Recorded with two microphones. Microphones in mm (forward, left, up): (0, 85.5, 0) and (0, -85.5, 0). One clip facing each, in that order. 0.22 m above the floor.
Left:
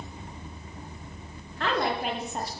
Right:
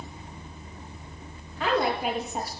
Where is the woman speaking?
5° right (ahead or behind), 4.5 m.